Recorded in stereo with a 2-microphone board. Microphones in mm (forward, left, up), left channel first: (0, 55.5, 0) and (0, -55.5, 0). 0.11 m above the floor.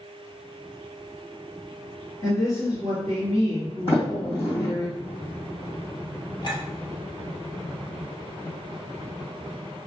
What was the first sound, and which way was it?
A woman speaking, 35° left (ahead or behind).